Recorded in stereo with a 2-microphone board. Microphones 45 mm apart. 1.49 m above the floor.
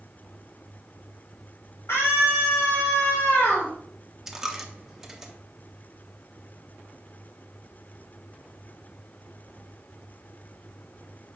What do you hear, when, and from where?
1.9 s a scream: 80° left, 2.5 m; by 3.7 s 30° left (ahead or behind), 2 m
4.3 s a dropped coin: 10° right (ahead or behind), 0.8 m